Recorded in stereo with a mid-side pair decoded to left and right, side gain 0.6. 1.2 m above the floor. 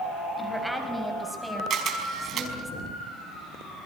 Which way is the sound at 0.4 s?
Straight ahead.